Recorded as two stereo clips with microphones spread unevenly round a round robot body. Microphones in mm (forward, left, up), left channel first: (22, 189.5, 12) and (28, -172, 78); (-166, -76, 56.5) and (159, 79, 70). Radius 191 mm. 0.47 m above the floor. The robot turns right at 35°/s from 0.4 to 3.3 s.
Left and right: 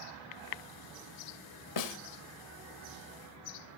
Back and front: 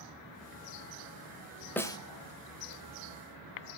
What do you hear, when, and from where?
1.8 s a snare drum: 120° left, 1.1 m; by 2.0 s 130° left, 1.1 m